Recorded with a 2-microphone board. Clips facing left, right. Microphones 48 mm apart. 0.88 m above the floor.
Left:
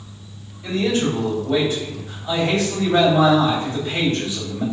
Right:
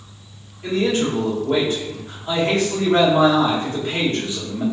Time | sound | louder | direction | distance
0.6 | a man speaking | right 1 dB | 45° right (ahead or behind) | 1.4 m